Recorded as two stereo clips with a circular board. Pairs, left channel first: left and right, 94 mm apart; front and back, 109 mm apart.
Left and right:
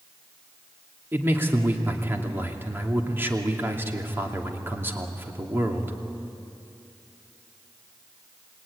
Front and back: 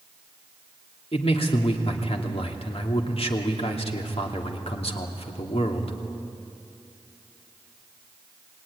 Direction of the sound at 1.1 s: 25° right.